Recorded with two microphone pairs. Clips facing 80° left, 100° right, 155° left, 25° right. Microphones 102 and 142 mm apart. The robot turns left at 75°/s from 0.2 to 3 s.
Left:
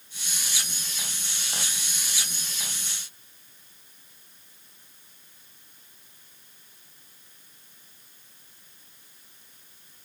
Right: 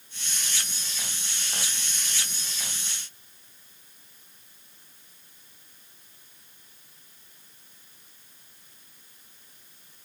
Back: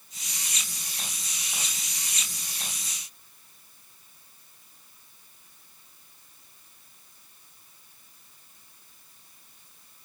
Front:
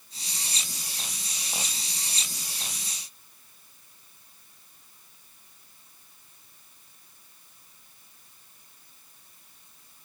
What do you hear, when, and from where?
Only background noise.